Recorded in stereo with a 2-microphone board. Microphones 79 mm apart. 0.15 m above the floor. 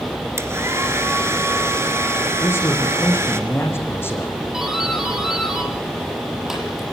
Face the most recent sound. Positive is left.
turn(degrees=-5)  # may be behind; listen again after turning